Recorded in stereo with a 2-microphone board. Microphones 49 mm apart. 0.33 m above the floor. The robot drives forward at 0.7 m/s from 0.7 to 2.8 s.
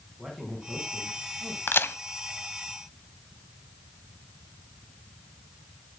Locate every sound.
0.2 s a man speaking: centre (ahead or behind), 3 m
1.7 s a crack: 45° left (ahead or behind), 1.0 m; by 2.0 s 55° left (ahead or behind), 0.9 m